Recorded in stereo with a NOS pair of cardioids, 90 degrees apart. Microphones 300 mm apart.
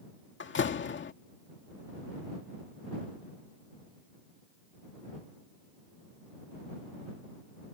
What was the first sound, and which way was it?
A door slam, 40° left.